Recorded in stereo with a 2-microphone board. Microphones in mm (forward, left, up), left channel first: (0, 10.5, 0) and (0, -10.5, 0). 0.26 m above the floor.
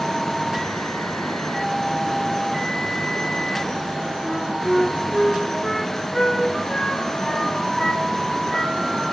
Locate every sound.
4.2 s a flute: 20° left (ahead or behind), 1.0 m